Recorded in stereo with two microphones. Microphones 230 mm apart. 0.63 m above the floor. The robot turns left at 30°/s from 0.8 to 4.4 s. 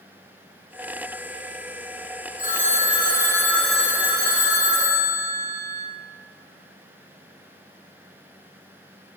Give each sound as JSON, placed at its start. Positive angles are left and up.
{"t": 2.4, "sound": "a phone ringing", "azimuth_deg": 40, "distance_m": 0.5}